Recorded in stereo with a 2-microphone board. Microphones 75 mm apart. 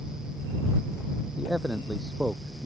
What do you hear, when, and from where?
1.4 s a man speaking: 10° right (ahead or behind)